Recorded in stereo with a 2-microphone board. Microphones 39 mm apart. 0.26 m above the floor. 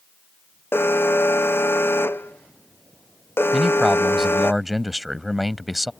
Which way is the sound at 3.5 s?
5° right (ahead or behind).